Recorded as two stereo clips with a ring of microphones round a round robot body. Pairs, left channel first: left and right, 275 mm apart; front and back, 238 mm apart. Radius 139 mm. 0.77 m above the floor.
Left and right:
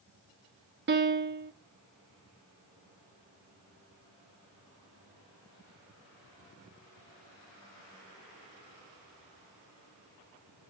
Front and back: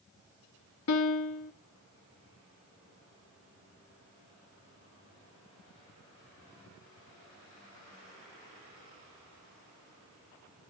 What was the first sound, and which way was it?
A piano, 35° right.